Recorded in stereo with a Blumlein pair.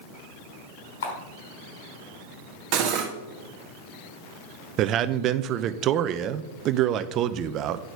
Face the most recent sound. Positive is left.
turn(degrees=-35)